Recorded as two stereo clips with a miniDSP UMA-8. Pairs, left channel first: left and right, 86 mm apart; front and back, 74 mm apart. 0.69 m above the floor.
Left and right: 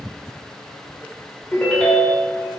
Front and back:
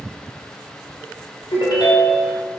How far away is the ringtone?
About 0.9 m.